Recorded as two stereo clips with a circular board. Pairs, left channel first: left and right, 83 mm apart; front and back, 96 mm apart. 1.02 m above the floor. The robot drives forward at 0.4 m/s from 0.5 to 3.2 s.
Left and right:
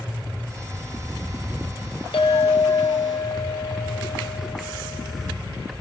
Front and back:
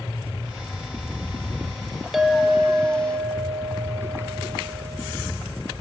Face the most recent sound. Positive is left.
turn(degrees=125)